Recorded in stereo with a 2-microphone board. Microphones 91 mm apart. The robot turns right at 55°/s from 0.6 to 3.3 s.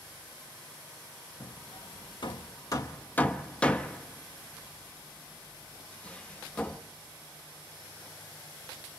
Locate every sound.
1.4 s hammering: 50° left (ahead or behind), 1.3 m; by 6.8 s 15° left (ahead or behind), 1.3 m